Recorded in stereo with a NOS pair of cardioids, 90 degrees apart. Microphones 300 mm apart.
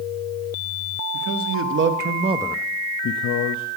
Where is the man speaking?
50° right, 1.3 m; by 3.7 s 75° left, 0.9 m.